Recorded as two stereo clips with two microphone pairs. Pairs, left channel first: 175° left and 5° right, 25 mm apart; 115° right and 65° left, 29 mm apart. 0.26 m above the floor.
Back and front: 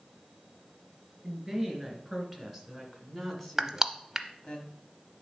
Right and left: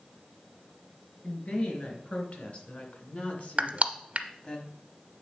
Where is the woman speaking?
85° right, 3 m; by 4.6 s 145° right, 1.3 m.